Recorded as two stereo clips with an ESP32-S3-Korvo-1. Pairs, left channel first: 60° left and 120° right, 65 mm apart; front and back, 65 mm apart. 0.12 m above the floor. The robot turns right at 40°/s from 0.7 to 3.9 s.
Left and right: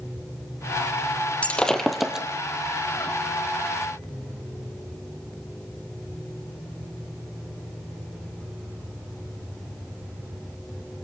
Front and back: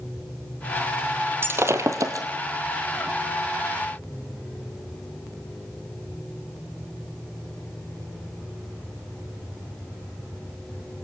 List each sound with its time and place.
1.4 s breaking glass: 130° left, 2.5 m; by 2.3 s 160° left, 2.5 m